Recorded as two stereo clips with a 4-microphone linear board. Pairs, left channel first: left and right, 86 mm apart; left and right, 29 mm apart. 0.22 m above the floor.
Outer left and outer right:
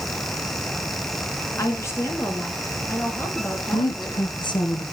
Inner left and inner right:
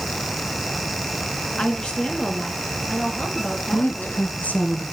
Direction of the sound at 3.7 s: 65° left (ahead or behind).